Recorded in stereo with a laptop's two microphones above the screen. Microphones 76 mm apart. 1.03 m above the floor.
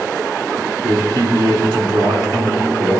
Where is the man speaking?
65° right (ahead or behind), 2 m.